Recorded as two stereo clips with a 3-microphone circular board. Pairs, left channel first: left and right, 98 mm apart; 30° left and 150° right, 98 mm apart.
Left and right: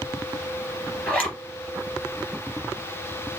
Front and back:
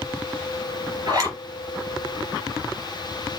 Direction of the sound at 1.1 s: 165° left.